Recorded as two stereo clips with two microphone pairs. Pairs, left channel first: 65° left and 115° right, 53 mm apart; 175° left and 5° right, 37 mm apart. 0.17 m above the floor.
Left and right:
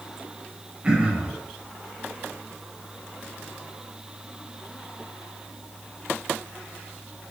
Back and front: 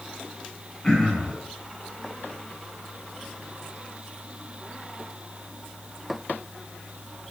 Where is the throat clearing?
135° right, 1.2 m.